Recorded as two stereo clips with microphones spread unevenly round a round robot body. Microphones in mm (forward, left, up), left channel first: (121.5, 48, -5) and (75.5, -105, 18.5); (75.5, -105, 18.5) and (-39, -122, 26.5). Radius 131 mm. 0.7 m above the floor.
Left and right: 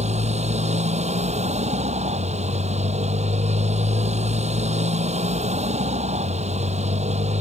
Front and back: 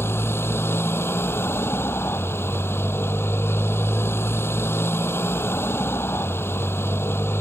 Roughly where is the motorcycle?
Ahead right.